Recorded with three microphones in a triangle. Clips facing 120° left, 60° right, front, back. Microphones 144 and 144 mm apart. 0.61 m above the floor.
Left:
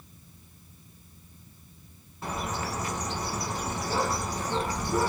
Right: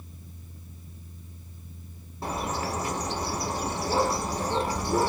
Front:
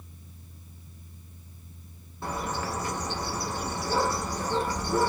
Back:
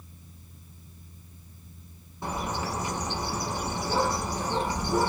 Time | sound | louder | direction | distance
2.2 | a bird | right 2 dB, even | 110° right | 0.8 m